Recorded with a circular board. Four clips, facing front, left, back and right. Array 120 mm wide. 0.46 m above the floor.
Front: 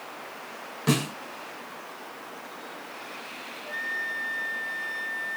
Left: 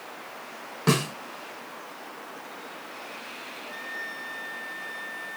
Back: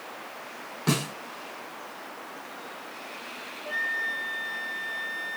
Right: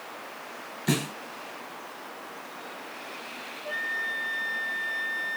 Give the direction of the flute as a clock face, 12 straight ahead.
4 o'clock.